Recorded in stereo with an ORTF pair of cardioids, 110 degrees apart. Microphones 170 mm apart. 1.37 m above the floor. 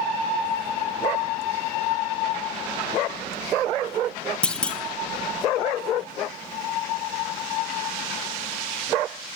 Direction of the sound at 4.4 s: 5° left.